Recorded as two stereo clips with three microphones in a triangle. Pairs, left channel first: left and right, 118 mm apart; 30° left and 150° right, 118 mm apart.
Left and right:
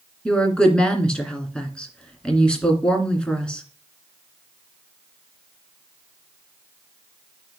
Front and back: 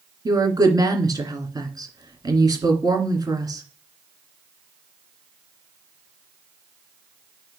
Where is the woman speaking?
170° left, 2 m.